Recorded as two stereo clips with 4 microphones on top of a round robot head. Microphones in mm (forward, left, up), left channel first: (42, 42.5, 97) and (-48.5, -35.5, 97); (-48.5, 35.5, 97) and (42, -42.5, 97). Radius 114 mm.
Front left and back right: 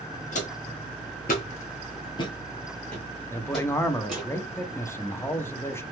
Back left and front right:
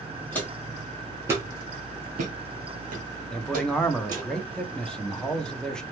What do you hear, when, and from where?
0.3 s footsteps: 60° left, 1.0 m; by 4.3 s 55° right, 1.5 m
3.3 s a man speaking: 65° left, 0.7 m